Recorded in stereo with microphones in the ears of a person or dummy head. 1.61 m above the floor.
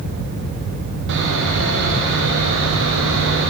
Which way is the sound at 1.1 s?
60° right (ahead or behind).